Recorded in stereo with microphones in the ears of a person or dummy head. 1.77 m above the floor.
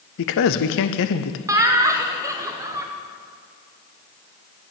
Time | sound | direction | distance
0.2 | a man speaking | 65° left (ahead or behind) | 0.6 m
1.5 | laughter | 20° right (ahead or behind) | 1.0 m